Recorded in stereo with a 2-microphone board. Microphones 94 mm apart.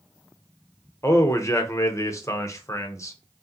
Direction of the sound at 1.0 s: 35° left (ahead or behind).